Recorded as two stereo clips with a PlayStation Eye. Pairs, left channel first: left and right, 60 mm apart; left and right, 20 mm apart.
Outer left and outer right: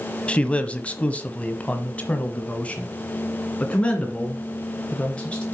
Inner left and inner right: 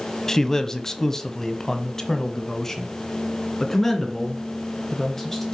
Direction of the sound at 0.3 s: 20° left (ahead or behind).